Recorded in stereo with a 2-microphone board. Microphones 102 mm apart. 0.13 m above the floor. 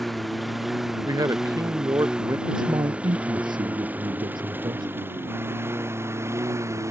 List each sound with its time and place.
0.0 s a lawn mower: centre (ahead or behind); by 6.9 s 30° right (ahead or behind)
1.1 s a man speaking: 35° right (ahead or behind)
2.5 s a man speaking: 50° right (ahead or behind)